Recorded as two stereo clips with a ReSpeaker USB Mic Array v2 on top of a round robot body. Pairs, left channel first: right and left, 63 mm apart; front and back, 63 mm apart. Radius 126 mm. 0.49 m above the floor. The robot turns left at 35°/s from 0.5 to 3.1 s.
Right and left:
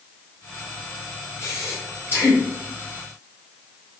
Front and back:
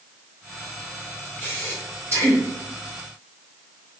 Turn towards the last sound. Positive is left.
turn(degrees=-170)